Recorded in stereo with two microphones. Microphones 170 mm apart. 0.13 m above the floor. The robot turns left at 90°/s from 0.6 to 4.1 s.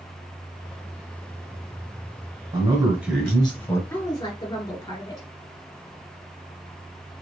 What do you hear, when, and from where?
2.5 s a man speaking: 20° right (ahead or behind), 1.3 m; by 3.8 s 15° left (ahead or behind), 1.3 m
3.9 s a woman speaking: 10° left (ahead or behind), 2 m; by 5.3 s 25° left (ahead or behind), 2 m